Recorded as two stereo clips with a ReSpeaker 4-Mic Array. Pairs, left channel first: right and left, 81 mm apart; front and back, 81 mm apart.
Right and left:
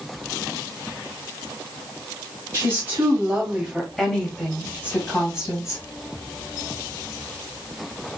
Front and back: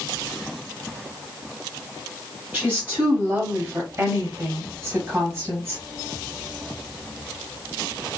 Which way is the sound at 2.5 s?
120° left.